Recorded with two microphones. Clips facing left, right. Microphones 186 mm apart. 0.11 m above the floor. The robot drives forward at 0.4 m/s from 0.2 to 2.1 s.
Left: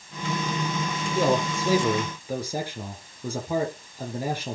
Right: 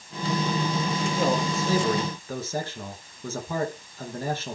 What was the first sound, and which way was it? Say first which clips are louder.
A man speaking: left 4 dB; 10° left (ahead or behind).